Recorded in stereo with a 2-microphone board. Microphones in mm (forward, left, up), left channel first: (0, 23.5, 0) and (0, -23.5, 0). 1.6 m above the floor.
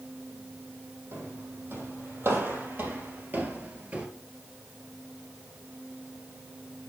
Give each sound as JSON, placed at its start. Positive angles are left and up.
{"t": 1.1, "sound": "footsteps", "side_deg": -65, "distance_m": 4.0}